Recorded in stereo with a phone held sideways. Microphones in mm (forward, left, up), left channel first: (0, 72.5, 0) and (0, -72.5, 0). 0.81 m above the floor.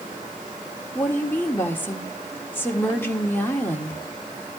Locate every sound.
0.9 s a woman speaking: 15° left (ahead or behind), 1.8 m